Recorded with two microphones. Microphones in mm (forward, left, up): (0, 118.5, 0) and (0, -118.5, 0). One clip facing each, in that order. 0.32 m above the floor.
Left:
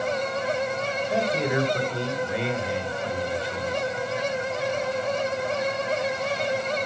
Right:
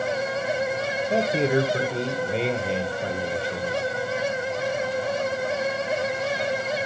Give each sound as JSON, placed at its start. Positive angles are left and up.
{"t": 1.1, "sound": "a man speaking", "side_deg": -30, "distance_m": 1.5}